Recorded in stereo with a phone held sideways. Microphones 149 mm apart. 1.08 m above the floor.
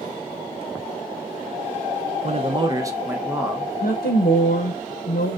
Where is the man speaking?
45° right (ahead or behind), 0.5 m; by 3.7 s centre (ahead or behind), 1.0 m.